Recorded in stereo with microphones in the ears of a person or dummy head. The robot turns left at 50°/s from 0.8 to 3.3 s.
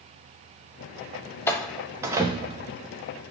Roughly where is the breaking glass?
No breaking glass in this recording.